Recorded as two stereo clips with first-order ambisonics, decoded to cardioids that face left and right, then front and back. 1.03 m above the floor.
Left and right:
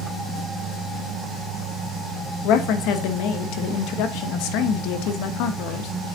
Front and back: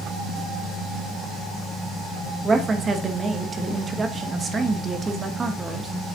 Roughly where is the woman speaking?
Left.